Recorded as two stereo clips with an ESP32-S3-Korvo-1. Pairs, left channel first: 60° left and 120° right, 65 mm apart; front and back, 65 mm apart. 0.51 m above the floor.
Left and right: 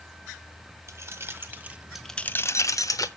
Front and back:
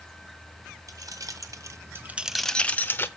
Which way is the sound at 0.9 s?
165° right.